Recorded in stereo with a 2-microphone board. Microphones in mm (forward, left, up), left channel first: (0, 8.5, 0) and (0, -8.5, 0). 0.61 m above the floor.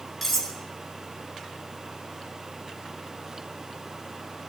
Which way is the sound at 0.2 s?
10° left (ahead or behind).